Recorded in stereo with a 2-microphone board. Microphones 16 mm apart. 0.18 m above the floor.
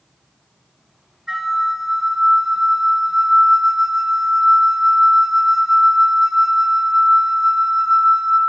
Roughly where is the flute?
Right.